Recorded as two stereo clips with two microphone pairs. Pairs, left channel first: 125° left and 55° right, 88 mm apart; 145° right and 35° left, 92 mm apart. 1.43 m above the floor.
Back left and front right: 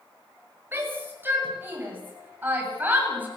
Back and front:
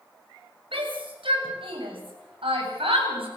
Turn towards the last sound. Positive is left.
turn(degrees=20)